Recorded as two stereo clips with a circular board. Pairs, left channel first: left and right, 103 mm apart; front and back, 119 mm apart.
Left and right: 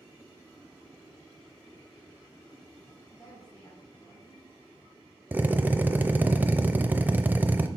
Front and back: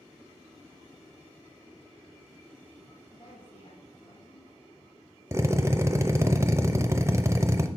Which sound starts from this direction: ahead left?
A woman speaking, at 3.1 s.